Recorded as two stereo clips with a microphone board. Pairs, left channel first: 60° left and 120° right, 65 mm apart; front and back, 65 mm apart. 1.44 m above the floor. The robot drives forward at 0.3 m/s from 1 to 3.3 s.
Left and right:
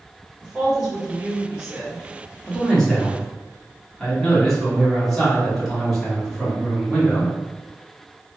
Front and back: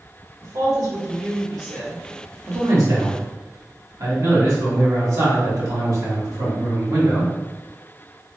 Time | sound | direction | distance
0.4 | a woman speaking | 160° left | 1.3 m
2.5 | a man speaking | 140° left | 1.1 m